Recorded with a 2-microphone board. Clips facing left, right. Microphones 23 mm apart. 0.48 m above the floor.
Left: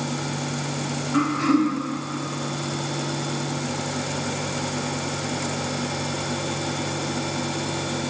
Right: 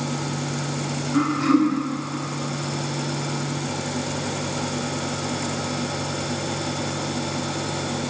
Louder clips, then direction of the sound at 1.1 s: Right 1 dB; 15° left (ahead or behind).